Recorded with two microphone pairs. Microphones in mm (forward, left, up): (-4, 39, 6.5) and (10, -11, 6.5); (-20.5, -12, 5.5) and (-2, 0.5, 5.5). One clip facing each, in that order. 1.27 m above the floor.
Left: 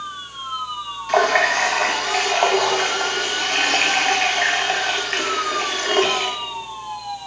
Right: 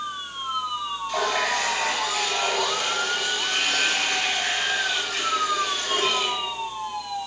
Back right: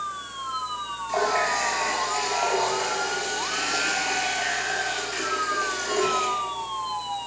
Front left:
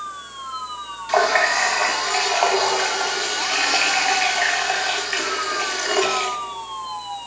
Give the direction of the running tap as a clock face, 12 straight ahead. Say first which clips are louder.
Left 9 dB, front left 6 dB; 9 o'clock.